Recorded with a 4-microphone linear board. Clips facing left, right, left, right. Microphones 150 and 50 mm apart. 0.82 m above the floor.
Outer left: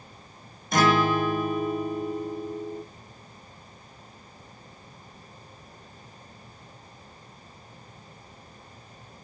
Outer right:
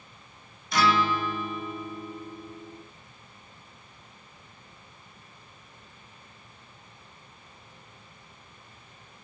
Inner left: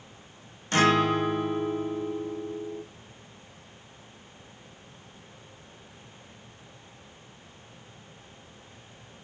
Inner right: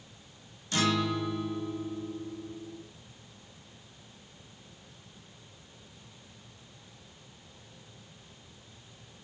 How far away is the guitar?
About 0.9 m.